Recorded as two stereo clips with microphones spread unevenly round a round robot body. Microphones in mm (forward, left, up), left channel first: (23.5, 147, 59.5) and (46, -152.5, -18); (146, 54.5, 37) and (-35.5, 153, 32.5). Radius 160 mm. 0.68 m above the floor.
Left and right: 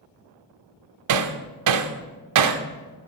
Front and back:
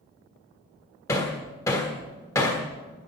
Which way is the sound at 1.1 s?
110° right.